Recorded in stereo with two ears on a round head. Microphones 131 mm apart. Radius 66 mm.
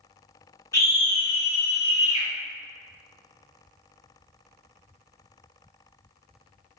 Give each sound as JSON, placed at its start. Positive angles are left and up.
{"t": 0.7, "sound": "a scream", "side_deg": 20, "distance_m": 1.1}